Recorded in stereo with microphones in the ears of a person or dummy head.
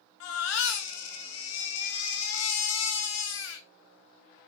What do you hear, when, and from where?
0.2 s a baby crying: 85° left, 2.5 m